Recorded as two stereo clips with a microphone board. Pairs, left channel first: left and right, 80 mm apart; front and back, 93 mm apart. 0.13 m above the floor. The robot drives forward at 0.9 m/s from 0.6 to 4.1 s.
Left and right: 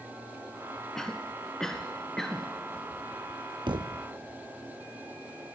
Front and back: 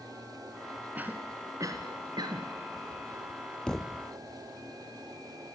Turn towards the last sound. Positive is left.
turn(degrees=-115)